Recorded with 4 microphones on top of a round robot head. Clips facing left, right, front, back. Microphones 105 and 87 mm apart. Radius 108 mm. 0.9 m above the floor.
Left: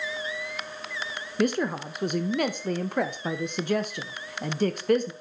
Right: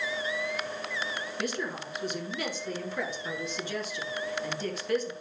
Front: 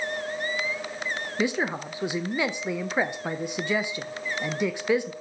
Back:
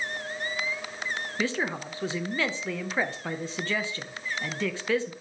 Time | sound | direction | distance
1.4 | a woman speaking | 75° left | 0.8 m